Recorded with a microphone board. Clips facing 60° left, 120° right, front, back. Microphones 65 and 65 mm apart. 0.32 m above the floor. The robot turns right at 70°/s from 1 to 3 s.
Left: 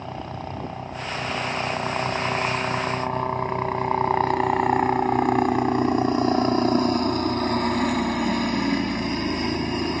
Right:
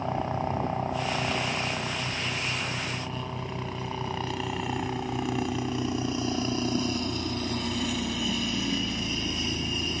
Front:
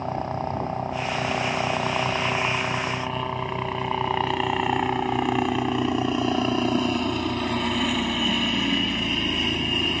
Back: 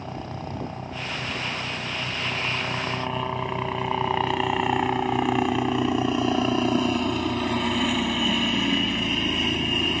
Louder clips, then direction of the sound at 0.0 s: Right 4 dB, front 7 dB; 45° right.